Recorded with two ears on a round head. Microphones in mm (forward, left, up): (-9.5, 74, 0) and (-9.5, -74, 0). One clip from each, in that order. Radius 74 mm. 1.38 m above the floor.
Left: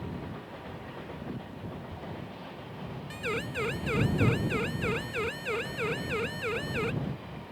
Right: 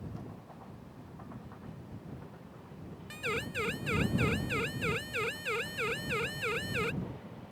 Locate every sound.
3.1 s a siren: 25° right (ahead or behind); by 6.9 s 35° right (ahead or behind)